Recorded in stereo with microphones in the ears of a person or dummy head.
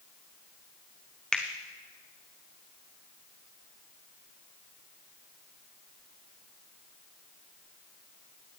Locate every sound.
1.3 s a finger snap: 5° left (ahead or behind), 0.7 m